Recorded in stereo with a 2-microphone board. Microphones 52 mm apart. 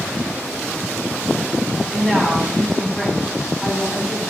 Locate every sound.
1.9 s a woman speaking: 10° left (ahead or behind), 1.9 m